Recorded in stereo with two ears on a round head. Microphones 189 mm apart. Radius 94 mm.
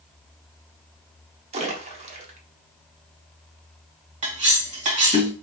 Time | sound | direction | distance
1.5 | a splash | 30° right (ahead or behind) | 0.9 m
4.2 | cutlery clinking | 35° right (ahead or behind) | 2.5 m